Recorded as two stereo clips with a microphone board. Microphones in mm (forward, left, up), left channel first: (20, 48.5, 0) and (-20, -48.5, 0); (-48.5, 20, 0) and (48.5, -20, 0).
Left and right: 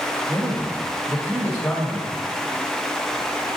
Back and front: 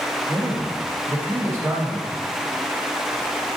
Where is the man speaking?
5° left, 1.3 m.